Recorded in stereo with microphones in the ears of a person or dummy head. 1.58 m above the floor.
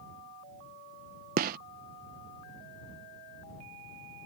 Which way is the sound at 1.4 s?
50° right (ahead or behind).